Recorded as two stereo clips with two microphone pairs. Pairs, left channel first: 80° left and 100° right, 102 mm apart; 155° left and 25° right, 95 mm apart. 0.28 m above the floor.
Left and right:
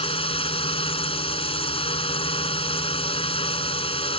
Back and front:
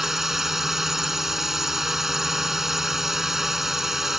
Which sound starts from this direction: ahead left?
A drone, at 0.0 s.